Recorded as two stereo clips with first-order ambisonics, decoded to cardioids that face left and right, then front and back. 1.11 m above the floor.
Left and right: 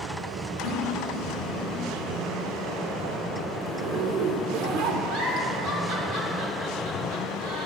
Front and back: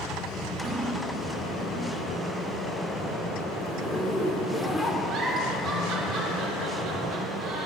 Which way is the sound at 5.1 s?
130° right.